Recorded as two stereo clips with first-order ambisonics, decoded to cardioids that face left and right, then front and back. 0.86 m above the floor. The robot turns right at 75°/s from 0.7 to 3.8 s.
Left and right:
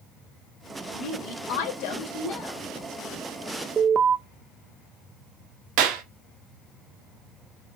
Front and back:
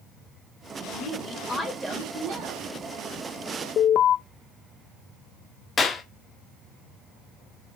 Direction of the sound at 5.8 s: 75° right.